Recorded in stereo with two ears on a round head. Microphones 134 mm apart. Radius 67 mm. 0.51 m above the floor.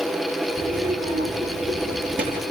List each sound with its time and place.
0.6 s a child speaking: 60° right (ahead or behind), 6 m; by 2.4 s 75° right (ahead or behind), 6.5 m